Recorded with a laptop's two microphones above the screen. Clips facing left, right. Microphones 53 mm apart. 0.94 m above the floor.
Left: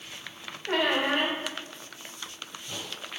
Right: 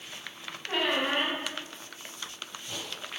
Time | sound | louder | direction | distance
0.7 | a squeak | left 3 dB | 70° left (ahead or behind) | 1.2 m